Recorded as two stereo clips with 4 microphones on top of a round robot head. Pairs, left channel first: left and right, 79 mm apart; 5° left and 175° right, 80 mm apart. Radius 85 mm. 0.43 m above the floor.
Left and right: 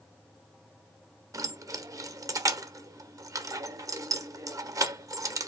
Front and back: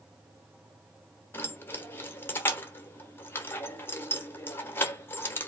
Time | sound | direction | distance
1.3 | keys jangling | 55° right | 1.1 m